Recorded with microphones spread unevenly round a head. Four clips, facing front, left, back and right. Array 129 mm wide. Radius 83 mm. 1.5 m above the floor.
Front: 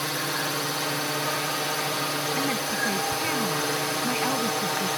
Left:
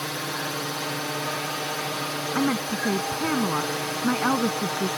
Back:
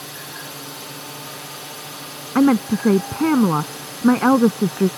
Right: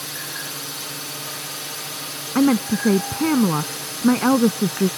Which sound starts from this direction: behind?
A woman speaking, at 2.4 s.